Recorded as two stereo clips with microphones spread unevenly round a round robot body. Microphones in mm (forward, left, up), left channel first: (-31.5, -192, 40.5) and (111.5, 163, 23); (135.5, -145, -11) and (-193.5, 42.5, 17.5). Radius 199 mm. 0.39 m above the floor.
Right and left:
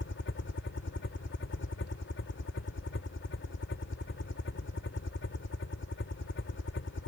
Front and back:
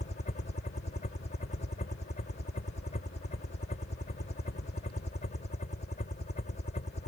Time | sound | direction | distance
0.0 | a helicopter | 80° right | ?